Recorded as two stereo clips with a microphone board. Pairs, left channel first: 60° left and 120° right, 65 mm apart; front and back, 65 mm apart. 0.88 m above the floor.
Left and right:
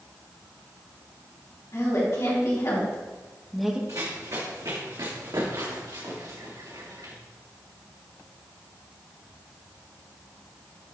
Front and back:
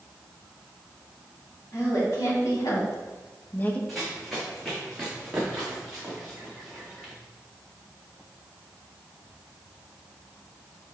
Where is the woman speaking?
30° left, 3 m; by 3.8 s 60° right, 1.0 m.